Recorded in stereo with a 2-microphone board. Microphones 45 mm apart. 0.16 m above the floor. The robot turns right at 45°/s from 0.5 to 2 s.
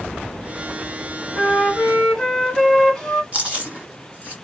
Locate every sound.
1.3 s a flute: 10° right (ahead or behind), 1.8 m; by 3.2 s 5° left (ahead or behind), 1.8 m
3.3 s chewing: 25° right (ahead or behind), 1.6 m